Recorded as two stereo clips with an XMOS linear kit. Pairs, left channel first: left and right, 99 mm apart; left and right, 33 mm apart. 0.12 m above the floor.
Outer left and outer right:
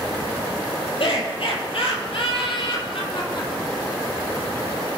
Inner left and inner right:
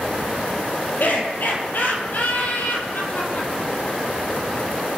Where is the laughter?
65° left (ahead or behind), 4.5 m; by 3.9 s 50° left (ahead or behind), 5.5 m.